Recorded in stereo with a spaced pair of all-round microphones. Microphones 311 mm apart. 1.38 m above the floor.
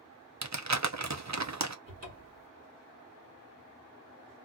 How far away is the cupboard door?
About 1.4 m.